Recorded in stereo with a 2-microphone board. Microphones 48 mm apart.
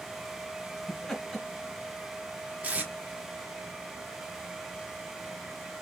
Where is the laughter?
10° left (ahead or behind), 1.5 m.